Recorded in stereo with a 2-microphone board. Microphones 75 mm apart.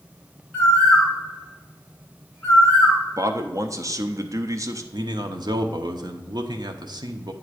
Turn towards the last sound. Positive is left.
turn(degrees=-70)  # may be behind; listen again after turning